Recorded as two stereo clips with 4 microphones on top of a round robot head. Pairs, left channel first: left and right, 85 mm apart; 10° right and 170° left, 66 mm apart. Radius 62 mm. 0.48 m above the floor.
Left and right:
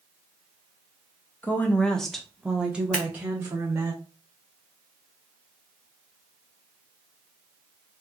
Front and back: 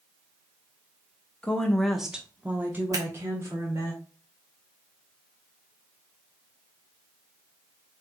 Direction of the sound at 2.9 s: 170° left.